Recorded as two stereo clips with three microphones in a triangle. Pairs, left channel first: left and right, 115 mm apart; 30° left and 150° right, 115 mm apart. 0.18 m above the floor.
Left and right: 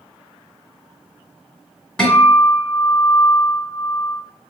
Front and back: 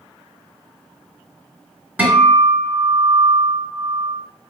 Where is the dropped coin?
No dropped coin in this recording.